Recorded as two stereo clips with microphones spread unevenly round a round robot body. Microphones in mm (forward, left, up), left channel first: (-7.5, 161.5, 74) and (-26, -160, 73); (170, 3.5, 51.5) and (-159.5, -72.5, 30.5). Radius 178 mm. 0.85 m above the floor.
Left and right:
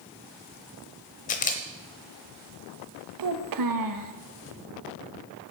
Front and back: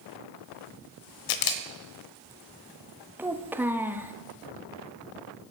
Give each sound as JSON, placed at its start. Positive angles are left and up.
{"t": 1.3, "sound": "a camera shutter", "azimuth_deg": 20, "distance_m": 0.9}
{"t": 3.2, "sound": "a child speaking", "azimuth_deg": -85, "distance_m": 0.9}